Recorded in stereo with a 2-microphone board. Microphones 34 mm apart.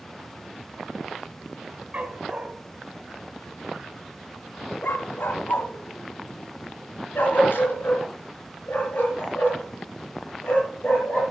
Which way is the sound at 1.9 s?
40° right (ahead or behind).